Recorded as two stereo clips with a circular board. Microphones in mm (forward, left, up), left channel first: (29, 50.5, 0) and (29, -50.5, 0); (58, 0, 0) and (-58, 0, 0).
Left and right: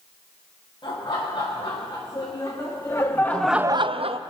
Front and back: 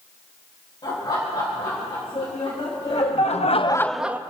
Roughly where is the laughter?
Ahead left.